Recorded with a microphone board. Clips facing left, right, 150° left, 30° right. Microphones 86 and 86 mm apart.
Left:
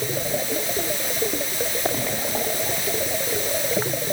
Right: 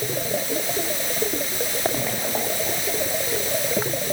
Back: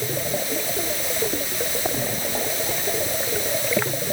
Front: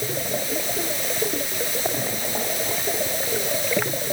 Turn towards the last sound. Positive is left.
No sound to turn to.